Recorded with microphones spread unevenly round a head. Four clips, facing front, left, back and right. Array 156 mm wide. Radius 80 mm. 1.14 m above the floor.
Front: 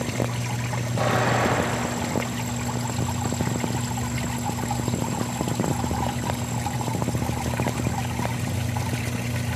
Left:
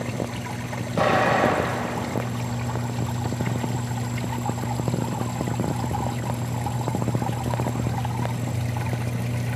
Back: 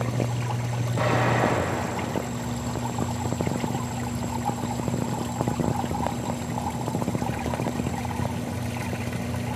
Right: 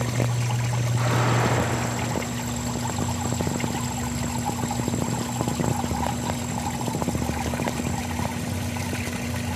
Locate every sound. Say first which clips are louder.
1.0 s an explosion: left 6 dB, even; 85° left, 3.5 m